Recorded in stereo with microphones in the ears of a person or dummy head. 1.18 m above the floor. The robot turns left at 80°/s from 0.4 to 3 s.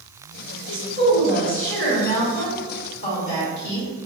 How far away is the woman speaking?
About 1.7 m.